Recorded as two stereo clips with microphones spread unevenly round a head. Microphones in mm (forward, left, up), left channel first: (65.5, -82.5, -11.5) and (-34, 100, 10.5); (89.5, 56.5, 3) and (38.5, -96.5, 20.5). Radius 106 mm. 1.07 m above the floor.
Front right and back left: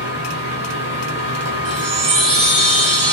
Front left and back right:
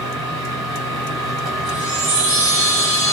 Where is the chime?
145° left, 4.5 m.